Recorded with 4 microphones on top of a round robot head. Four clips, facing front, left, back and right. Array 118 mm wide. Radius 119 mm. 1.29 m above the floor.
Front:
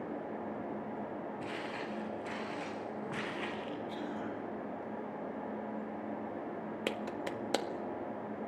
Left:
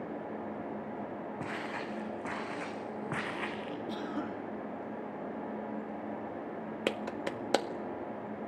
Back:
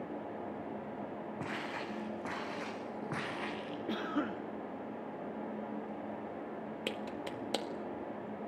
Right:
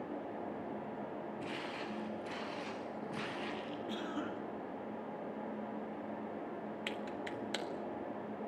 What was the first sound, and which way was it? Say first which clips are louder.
Footsteps: left 4 dB, even; 130° left.